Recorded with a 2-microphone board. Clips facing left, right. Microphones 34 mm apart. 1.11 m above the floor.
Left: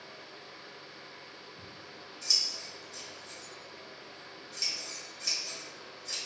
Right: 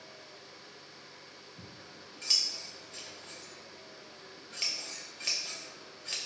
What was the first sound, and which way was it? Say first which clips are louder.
Scissors: left 2 dB; 40° right (ahead or behind).